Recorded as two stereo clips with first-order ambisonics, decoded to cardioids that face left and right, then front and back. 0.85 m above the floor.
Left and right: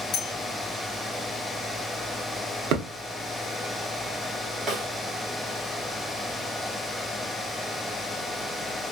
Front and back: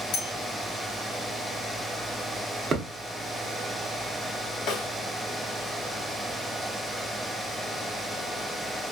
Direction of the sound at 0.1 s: 40° left.